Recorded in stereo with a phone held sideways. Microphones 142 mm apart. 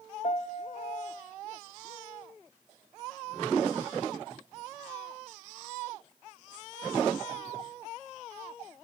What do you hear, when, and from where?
0.2 s a piano: 55° left (ahead or behind), 0.6 m